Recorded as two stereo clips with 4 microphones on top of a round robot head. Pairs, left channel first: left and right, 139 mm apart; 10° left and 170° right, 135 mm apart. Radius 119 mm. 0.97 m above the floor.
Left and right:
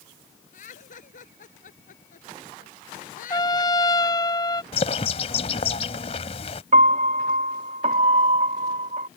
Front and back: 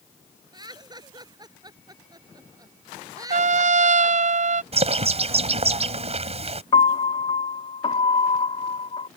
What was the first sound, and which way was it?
Laughter, 130° left.